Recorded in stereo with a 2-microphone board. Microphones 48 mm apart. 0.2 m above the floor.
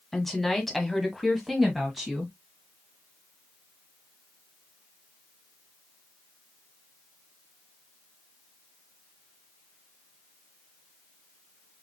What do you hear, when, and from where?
0.1 s a woman speaking: 5° left (ahead or behind), 1.4 m; by 2.3 s 5° right (ahead or behind), 1.5 m